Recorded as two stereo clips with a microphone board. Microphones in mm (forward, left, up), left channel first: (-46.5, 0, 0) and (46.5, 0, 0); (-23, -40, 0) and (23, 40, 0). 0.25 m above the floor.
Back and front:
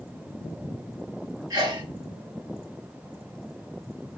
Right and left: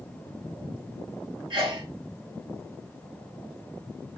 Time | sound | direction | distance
1.5 | a sneeze | 35° left | 3.5 m